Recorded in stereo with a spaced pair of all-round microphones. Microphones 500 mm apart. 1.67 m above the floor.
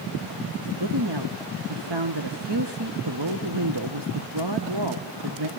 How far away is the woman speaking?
About 1.5 m.